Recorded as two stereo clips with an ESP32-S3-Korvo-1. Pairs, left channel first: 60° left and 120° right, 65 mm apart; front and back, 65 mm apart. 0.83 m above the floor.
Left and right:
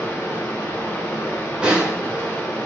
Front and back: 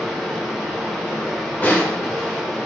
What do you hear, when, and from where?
0.0 s running water: 95° left, 0.8 m
1.6 s a snare drum: 50° right, 0.7 m